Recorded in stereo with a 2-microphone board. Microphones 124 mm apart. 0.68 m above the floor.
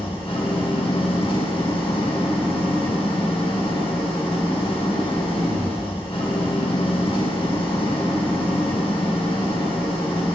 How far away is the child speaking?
No child speaking in this recording.